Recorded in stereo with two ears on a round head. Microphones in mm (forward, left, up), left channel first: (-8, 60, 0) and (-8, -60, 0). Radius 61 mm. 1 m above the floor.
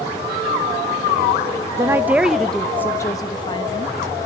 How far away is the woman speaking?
About 1.3 m.